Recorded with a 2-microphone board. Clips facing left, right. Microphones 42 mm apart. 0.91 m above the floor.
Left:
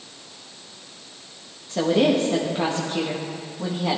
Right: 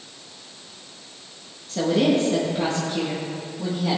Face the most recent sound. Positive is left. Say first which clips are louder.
# left 1 dB
turn(degrees=25)  # may be behind; listen again after turning